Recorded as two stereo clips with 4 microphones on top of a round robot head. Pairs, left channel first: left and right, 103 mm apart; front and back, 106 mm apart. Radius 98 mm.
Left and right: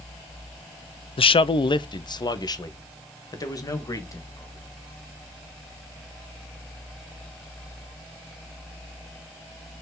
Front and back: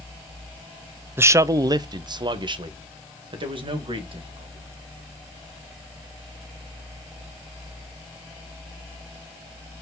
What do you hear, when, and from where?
1.2 s a man speaking: 110° left, 0.5 m; by 4.7 s 145° left, 2.5 m